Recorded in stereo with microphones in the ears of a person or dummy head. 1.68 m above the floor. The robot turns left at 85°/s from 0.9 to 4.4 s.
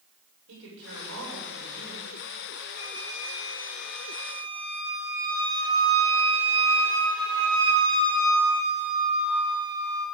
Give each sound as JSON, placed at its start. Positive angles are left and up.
{"t": 0.5, "sound": "a woman speaking", "azimuth_deg": -70, "distance_m": 6.5}
{"t": 2.8, "sound": "a flute", "azimuth_deg": 120, "distance_m": 4.5}